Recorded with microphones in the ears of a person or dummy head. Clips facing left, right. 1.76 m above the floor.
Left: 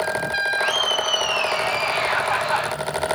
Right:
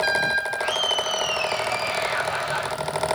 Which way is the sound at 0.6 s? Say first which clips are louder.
Left 2 dB; 70° left (ahead or behind).